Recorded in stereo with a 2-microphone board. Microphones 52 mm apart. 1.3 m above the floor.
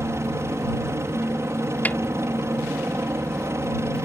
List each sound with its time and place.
0.0 s a helicopter: 60° right (ahead or behind)
1.9 s a snare drum: 35° left (ahead or behind)